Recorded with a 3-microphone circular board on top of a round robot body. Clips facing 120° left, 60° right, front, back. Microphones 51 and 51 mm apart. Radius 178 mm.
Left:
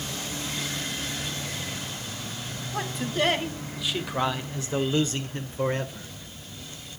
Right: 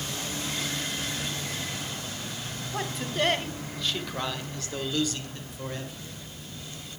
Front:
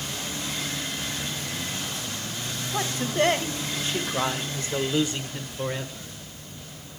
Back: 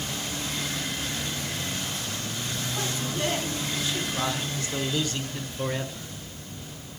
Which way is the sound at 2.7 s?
30° left.